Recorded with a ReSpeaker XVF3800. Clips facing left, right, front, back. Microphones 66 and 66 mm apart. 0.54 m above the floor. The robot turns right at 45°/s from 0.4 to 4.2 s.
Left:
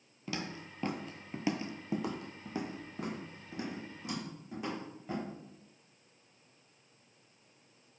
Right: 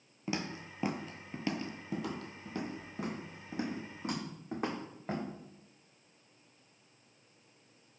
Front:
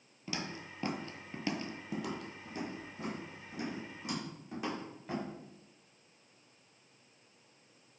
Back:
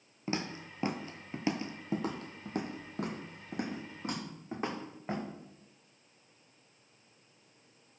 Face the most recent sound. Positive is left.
turn(degrees=-130)